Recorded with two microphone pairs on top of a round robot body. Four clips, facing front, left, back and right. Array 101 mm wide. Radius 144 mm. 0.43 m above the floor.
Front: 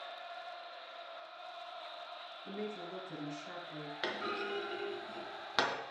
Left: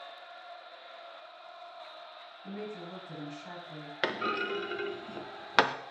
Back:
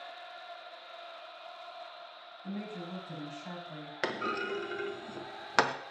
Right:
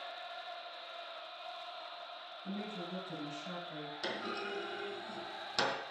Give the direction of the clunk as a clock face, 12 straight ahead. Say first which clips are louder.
Left 9 dB, back 5 dB; 8 o'clock.